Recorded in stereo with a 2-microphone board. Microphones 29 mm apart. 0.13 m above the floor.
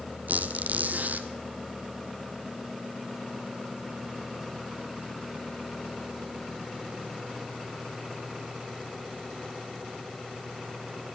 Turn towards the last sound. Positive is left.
turn(degrees=-80)